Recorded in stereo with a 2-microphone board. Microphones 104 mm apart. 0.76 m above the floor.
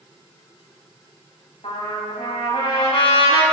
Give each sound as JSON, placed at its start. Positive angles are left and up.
{"t": 1.6, "sound": "a trumpet", "side_deg": 70, "distance_m": 4.0}